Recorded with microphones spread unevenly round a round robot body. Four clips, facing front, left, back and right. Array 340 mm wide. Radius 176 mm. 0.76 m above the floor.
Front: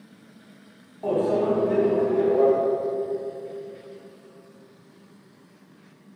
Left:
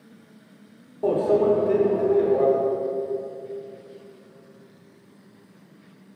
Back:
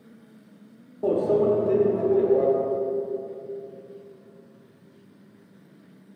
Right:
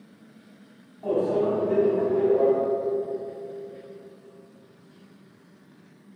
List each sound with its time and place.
1.0 s a microwave: 145° left, 1.4 m